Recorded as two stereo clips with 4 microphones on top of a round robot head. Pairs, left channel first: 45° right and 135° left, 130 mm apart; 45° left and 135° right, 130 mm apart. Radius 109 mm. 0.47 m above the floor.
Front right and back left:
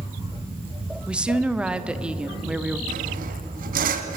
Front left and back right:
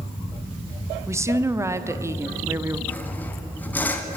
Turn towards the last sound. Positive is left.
turn(degrees=120)